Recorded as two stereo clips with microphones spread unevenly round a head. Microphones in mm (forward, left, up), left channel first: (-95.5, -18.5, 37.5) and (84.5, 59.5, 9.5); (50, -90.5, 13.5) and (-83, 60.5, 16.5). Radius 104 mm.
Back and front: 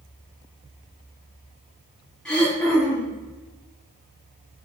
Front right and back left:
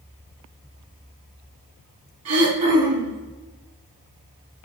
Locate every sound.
2.2 s throat clearing: 120° left, 3.5 m